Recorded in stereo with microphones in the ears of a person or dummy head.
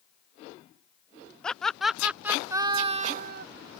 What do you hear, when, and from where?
1.4 s laughter: 5° left (ahead or behind); by 3.5 s 55° right (ahead or behind)